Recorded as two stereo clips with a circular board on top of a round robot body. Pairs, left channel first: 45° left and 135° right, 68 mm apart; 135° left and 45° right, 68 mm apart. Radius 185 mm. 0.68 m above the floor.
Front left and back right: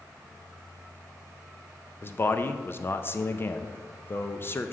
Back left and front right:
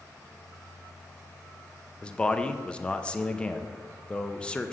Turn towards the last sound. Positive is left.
turn(degrees=70)